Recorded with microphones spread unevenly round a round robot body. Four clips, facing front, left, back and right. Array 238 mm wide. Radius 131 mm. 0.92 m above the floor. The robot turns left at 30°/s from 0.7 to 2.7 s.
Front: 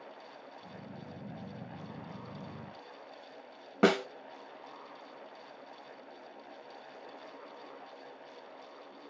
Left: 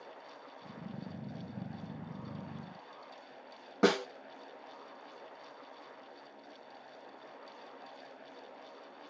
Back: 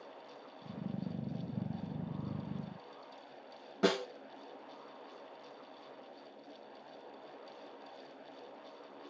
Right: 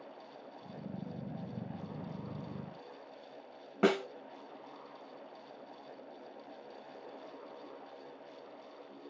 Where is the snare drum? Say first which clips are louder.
Left 1 dB, front 5 dB; 25° left, 0.7 m.